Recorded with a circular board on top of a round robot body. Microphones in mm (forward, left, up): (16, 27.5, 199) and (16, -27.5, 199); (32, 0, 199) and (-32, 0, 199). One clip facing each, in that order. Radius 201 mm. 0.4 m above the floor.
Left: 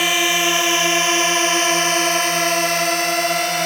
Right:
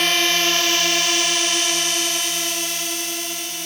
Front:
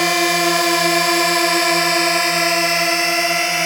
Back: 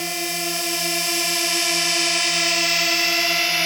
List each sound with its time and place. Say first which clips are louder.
0.0 s a drone: left 2 dB, front 11 dB; 10° left; by 3.7 s 70° left